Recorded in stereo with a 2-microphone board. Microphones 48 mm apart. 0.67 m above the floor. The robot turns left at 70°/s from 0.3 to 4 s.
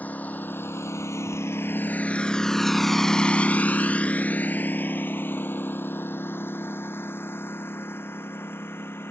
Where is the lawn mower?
35° left (ahead or behind); by 9.1 s 55° left (ahead or behind).